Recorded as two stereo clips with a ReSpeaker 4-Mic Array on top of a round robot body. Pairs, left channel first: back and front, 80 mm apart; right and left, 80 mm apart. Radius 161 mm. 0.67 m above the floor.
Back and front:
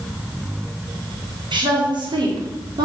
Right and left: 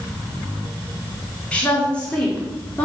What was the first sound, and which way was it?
A woman speaking, 15° right.